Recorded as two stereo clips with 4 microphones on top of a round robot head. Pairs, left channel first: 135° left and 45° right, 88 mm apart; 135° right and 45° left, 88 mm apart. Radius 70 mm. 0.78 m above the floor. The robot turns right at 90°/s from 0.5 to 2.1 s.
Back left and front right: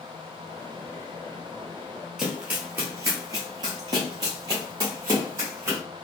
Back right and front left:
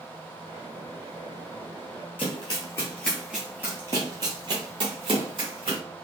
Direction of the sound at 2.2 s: 125° right.